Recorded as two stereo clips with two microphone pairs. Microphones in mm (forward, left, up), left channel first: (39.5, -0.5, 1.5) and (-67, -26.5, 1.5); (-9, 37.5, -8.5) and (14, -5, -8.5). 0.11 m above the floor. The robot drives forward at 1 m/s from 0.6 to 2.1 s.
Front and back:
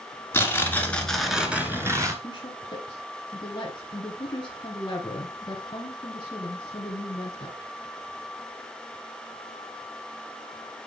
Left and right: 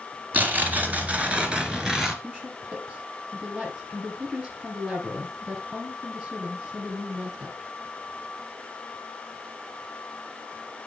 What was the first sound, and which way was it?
Tearing paper, 40° right.